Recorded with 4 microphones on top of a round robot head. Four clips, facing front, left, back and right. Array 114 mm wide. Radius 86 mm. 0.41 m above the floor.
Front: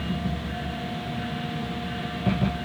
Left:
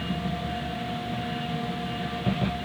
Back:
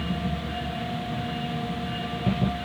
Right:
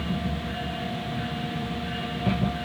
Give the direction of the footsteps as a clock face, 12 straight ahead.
No footsteps in this recording.